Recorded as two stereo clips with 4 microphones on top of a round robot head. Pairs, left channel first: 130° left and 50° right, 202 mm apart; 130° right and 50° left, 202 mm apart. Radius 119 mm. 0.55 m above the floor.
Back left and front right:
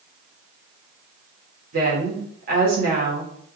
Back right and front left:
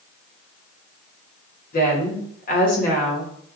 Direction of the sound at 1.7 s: 85° right.